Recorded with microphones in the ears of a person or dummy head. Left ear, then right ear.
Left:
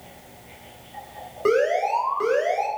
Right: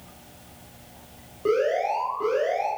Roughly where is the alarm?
Left.